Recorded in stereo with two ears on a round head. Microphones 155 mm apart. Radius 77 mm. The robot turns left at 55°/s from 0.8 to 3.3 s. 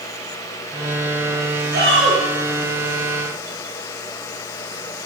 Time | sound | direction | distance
1.7 | a shout | 55° right (ahead or behind) | 9 m